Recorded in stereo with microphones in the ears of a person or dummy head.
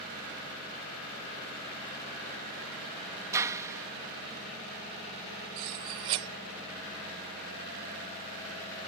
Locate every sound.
3.3 s a clap: 20° right (ahead or behind)
5.6 s cutlery clinking: 20° right (ahead or behind)